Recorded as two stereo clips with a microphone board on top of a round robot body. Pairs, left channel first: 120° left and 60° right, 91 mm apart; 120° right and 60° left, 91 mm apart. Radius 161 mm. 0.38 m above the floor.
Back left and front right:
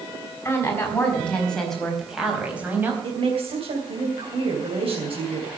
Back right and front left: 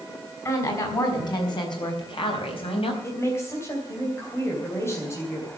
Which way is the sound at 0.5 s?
175° right.